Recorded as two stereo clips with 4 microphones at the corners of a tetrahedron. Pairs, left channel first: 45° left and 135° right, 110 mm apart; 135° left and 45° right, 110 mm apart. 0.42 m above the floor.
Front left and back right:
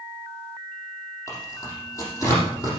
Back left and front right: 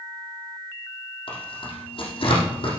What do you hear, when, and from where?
1.3 s tearing paper: 105° left, 5 m